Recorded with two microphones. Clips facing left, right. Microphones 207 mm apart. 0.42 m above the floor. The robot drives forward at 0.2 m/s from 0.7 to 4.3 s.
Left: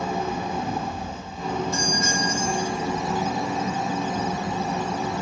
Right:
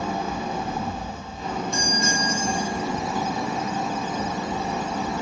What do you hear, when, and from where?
0.0 s an engine running: 75° left (ahead or behind), 1.8 m; by 5.2 s 65° left (ahead or behind), 1.9 m
1.7 s a doorbell: 5° left (ahead or behind), 1.4 m